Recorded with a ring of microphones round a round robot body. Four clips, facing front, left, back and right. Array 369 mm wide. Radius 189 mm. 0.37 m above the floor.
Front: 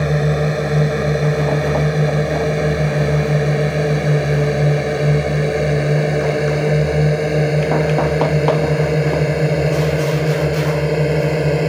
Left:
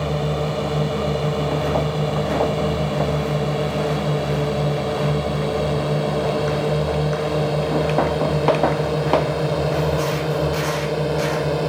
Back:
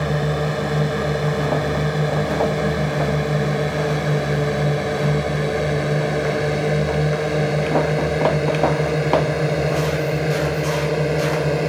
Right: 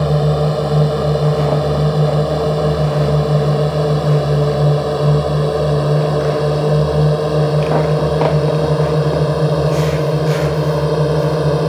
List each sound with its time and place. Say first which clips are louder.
0.0 s a drone: right 7 dB, front 4 dB; 65° right; by 11.7 s 60° right